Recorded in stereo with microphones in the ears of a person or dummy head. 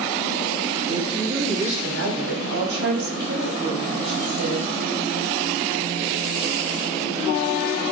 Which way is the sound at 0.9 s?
75° right (ahead or behind).